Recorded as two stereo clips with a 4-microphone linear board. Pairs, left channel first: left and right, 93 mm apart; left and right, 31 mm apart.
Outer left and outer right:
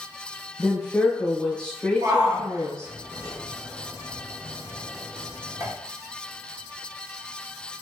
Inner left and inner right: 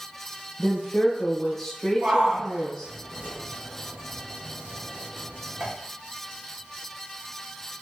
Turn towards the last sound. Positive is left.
turn(degrees=-40)  # may be behind; listen again after turning